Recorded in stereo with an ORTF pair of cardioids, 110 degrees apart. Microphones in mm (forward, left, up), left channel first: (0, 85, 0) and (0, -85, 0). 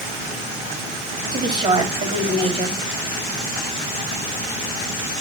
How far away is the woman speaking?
About 3.5 m.